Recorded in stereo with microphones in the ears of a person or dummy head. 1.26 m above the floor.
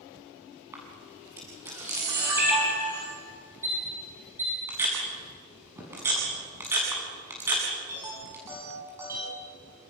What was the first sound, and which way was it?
A camera shutter, 15° right (ahead or behind).